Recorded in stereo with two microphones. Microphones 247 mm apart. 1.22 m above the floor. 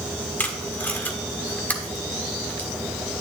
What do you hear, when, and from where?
0.4 s tape being pulled: 5° left (ahead or behind), 1.3 m